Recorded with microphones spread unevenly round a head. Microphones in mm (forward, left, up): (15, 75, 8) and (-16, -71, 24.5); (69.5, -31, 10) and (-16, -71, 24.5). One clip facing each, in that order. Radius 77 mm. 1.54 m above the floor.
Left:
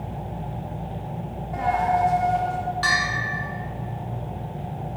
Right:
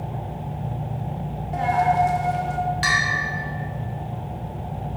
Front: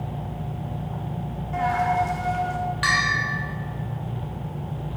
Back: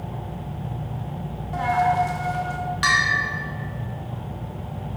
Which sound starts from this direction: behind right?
A bell, at 2.8 s.